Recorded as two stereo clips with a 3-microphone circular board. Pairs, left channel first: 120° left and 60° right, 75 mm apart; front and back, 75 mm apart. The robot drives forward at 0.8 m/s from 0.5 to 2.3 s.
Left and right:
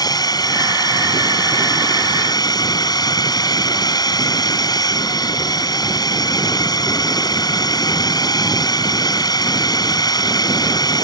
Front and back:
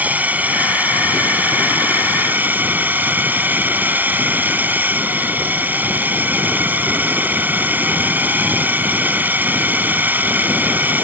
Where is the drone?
115° left.